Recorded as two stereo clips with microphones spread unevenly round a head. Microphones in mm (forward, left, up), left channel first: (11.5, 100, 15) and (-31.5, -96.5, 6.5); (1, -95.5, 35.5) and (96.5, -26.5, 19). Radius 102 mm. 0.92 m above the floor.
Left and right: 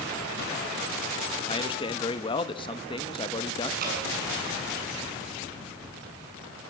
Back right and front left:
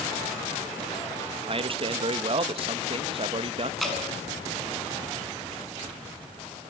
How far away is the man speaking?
About 1.0 m.